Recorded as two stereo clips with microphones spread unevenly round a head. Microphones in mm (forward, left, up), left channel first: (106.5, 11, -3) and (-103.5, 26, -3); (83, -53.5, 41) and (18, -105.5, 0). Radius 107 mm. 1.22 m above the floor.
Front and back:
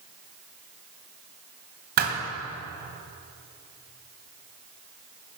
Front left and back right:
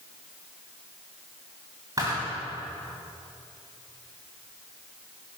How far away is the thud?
About 2.5 m.